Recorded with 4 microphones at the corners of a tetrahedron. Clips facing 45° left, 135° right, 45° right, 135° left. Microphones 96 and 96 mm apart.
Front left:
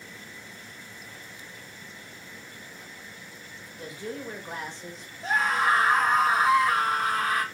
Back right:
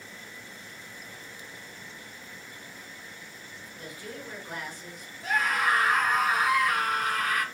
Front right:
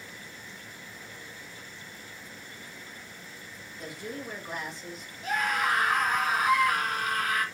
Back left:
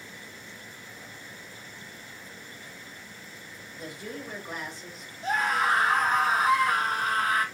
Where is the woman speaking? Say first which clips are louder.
Front left 5 dB, even; 45° left, 1.4 m.